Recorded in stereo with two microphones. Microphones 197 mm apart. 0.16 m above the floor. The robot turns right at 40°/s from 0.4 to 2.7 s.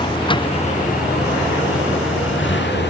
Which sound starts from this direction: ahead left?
A vehicle, at 0.0 s.